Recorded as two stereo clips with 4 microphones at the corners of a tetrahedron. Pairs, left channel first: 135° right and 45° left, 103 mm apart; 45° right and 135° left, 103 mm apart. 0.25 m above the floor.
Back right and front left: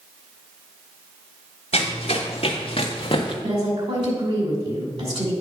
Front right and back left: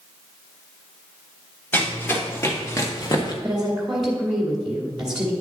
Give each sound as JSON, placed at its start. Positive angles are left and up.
{"t": 1.7, "sound": "running footsteps", "azimuth_deg": -115, "distance_m": 2.5}
{"t": 3.4, "sound": "a woman speaking", "azimuth_deg": 50, "distance_m": 1.9}